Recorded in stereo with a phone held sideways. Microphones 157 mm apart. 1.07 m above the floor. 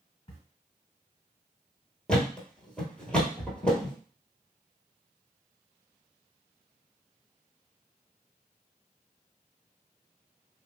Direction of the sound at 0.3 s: 40° left (ahead or behind).